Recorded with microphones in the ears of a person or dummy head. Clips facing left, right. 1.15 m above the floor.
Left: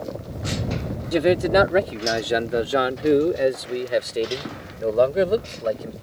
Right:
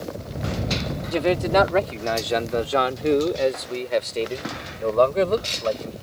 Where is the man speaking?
20° left (ahead or behind); by 5.9 s 15° left (ahead or behind).